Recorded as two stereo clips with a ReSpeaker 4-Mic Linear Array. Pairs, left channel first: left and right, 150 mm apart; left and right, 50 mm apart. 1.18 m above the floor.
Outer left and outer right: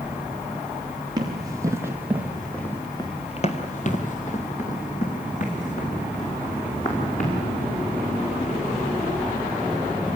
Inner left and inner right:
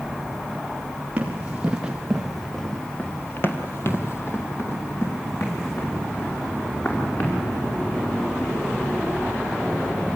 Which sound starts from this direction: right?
Running footsteps, at 1.2 s.